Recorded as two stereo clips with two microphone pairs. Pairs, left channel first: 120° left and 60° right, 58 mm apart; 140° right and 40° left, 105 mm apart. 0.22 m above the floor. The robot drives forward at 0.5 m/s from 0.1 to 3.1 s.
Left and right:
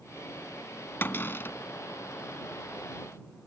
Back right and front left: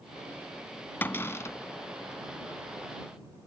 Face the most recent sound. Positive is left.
turn(degrees=170)